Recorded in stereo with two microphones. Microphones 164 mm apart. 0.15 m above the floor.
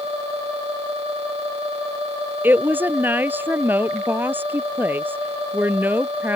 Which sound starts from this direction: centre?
A woman speaking, at 2.4 s.